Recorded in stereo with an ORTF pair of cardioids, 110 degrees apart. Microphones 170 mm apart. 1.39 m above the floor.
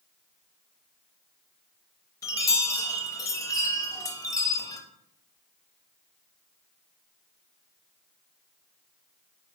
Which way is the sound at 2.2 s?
20° left.